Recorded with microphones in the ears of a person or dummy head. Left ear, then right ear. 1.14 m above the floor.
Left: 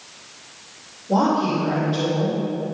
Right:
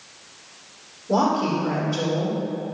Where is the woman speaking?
80° right, 4 m.